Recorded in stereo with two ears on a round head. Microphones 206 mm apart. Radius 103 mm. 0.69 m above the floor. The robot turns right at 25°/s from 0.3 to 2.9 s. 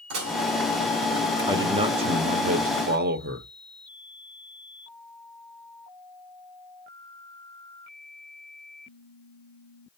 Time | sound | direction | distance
0.1 | dishes clattering | 80° right | 2 m
1.5 | a man speaking | 160° right | 0.8 m